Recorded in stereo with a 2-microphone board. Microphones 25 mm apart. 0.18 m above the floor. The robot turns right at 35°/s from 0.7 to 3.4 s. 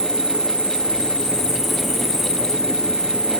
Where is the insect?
135° left, 3 m; by 3.4 s 130° right, 3 m.